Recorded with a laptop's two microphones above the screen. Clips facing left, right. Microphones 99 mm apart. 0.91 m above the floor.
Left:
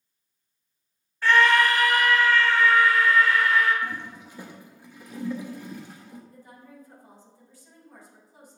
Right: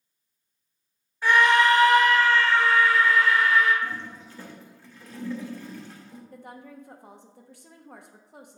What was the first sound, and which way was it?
A scream, 15° right (ahead or behind).